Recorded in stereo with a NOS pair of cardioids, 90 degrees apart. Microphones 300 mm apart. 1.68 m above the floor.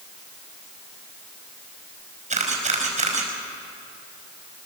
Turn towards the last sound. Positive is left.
turn(degrees=-25)